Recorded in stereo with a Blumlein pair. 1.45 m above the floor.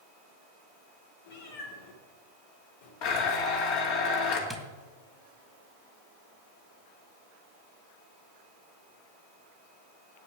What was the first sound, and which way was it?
A cat meowing, 55° left.